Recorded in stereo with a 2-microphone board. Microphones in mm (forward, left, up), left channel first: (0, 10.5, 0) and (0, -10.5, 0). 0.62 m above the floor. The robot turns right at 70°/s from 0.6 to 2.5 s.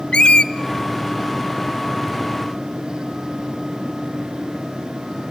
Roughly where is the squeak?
Left.